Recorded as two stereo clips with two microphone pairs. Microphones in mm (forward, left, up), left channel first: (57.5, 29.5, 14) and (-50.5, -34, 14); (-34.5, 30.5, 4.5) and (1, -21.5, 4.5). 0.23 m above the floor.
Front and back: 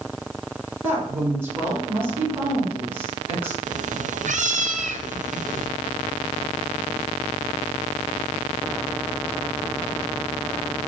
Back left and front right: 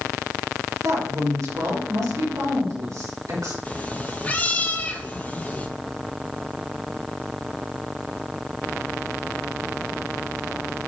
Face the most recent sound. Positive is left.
turn(degrees=-170)